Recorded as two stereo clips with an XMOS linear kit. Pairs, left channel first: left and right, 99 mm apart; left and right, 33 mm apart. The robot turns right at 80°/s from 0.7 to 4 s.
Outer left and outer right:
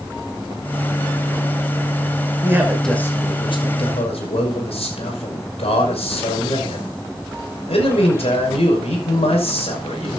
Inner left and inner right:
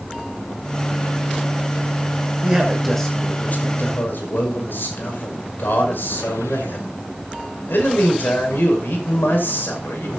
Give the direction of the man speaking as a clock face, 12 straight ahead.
1 o'clock.